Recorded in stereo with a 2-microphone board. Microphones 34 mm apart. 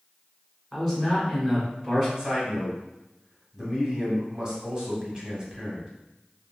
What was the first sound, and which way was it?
A man speaking, 15° right (ahead or behind).